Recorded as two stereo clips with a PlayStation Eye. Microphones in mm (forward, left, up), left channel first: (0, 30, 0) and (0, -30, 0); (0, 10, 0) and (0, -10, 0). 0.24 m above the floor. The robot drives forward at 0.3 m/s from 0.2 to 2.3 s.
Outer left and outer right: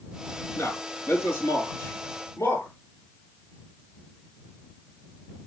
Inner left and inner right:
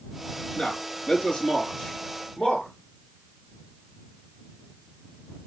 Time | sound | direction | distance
0.6 | a man speaking | 40° left (ahead or behind) | 4 m